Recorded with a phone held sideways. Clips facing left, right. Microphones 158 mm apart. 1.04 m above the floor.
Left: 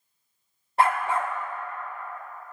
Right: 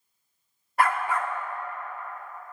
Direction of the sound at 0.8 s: 25° left (ahead or behind).